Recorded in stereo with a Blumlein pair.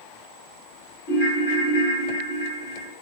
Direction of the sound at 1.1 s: 65° left.